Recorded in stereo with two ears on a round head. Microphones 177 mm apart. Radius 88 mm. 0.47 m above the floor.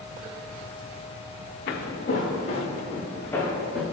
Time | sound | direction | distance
1.7 | footsteps | 55° left (ahead or behind) | 2.0 m